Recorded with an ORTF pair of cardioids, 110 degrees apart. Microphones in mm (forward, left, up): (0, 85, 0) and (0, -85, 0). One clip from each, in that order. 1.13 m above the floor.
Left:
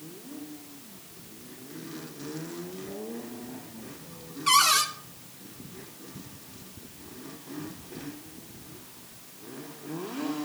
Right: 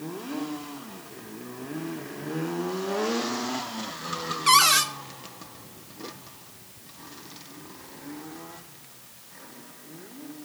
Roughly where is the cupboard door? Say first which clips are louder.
Right 3 dB; ahead right.